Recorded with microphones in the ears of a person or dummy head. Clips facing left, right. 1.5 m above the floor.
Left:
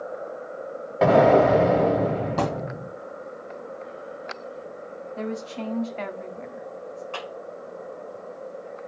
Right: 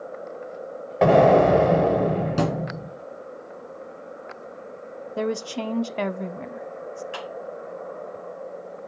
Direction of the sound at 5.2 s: 50° right (ahead or behind).